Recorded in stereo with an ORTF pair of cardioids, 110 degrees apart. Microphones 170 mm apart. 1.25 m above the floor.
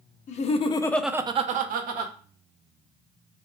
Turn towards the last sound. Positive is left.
turn(degrees=-75)